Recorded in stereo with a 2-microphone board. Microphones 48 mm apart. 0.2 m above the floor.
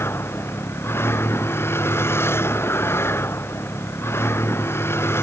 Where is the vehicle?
55° left (ahead or behind).